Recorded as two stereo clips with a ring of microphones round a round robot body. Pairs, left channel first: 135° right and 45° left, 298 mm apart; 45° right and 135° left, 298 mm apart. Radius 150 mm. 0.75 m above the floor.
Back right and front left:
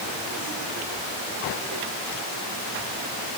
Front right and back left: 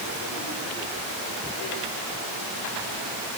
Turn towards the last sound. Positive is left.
No sound to turn to.